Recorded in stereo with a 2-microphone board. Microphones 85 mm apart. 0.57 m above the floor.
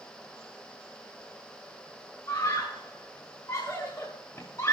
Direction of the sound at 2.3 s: 35° left (ahead or behind).